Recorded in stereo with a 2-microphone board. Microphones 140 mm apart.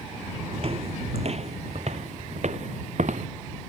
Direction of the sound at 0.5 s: 45° right (ahead or behind).